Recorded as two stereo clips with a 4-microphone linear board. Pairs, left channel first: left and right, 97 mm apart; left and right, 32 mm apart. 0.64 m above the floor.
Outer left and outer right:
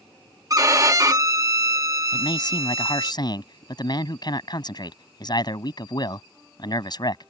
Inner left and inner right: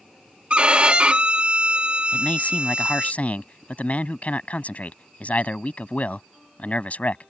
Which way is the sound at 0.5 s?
35° right (ahead or behind).